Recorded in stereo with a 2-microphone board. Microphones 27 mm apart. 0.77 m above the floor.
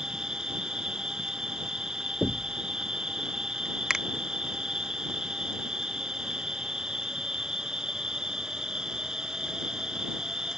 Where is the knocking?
25° left (ahead or behind).